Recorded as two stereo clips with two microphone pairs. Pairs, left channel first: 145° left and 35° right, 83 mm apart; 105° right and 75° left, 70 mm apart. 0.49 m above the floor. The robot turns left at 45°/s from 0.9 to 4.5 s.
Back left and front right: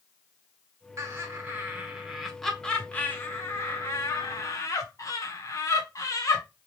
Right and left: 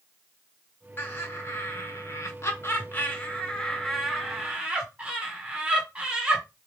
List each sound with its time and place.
1.0 s laughter: 60° right, 1.6 m; by 6.4 s 140° left, 1.6 m